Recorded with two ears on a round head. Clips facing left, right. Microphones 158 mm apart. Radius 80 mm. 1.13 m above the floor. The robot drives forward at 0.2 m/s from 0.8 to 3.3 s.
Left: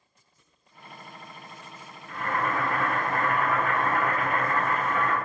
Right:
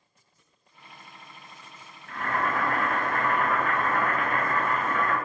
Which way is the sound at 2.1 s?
20° left (ahead or behind).